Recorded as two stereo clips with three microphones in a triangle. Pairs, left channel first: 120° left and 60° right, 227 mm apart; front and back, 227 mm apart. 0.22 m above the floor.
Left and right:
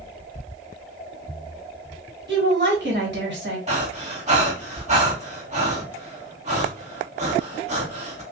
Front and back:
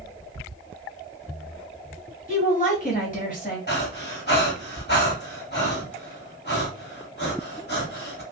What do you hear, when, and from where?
2.3 s a woman speaking: 45° right, 1.7 m
3.7 s breathing: 10° right, 1.5 m